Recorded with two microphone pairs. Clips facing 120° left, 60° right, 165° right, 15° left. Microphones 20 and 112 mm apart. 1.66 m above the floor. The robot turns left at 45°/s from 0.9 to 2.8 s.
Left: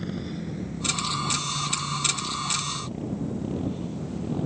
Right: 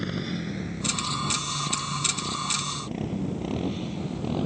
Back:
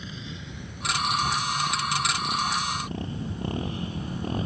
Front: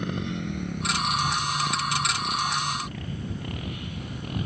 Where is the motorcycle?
5° right; by 4.5 s 105° right.